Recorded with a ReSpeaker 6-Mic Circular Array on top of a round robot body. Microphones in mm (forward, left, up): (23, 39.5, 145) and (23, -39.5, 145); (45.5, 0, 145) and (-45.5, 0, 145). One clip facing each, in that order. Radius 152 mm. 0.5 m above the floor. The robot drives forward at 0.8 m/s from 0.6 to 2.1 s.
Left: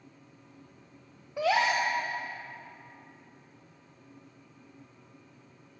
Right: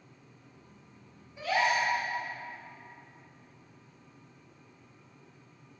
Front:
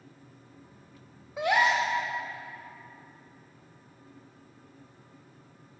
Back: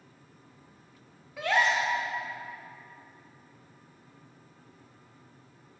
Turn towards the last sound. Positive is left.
turn(degrees=105)